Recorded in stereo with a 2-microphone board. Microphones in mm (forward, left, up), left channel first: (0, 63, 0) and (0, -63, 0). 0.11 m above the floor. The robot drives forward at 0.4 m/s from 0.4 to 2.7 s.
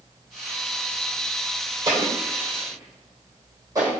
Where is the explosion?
30° right (ahead or behind), 2 m; by 3.9 s 25° right (ahead or behind), 2.5 m.